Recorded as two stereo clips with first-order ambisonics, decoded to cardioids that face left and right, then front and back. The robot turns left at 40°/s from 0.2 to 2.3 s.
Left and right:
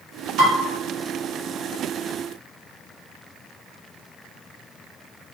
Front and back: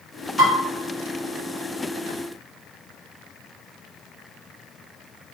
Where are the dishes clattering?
90° right, 2.5 m; by 0.5 s 95° right, 2.5 m.